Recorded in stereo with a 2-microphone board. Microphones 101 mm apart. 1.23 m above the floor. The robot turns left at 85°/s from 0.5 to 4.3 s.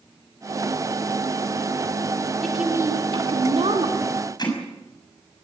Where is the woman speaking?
5° left, 3.5 m; by 4.2 s 145° right, 3.5 m.